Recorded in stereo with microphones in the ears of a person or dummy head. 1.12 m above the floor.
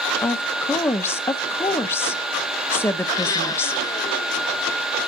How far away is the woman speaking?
About 0.7 m.